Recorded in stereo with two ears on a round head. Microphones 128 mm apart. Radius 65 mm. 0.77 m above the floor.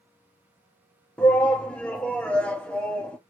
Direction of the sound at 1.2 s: 10° left (ahead or behind).